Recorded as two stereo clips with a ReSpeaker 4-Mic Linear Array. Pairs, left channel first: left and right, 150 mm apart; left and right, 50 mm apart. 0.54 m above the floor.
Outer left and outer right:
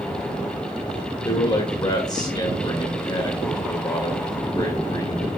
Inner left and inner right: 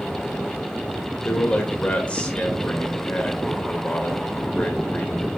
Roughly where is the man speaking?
Left.